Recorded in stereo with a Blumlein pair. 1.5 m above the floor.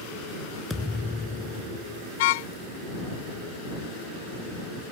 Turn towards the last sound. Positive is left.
turn(degrees=50)